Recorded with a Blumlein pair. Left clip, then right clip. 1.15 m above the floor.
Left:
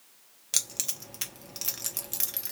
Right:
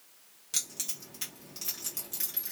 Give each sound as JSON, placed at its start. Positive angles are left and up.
{"t": 0.5, "sound": "keys jangling", "azimuth_deg": 65, "distance_m": 0.8}